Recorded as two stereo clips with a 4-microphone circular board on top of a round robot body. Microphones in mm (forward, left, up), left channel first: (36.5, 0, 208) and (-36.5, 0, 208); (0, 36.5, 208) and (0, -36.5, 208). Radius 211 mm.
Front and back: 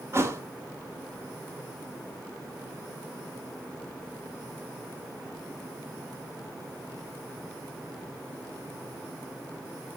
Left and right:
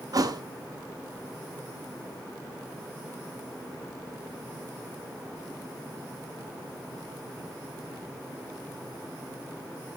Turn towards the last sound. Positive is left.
turn(degrees=-125)